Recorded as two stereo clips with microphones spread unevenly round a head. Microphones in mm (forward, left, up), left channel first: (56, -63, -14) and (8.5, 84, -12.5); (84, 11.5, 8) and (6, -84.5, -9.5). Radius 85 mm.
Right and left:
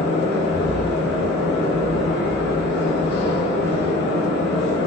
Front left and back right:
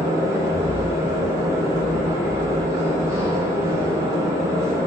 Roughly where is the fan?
Ahead right.